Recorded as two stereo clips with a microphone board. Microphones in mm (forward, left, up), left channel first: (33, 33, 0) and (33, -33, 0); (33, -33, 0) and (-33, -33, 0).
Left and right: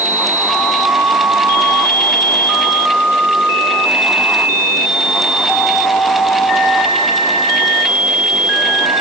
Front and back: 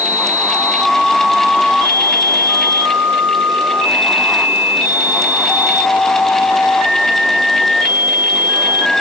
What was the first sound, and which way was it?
Only background noise.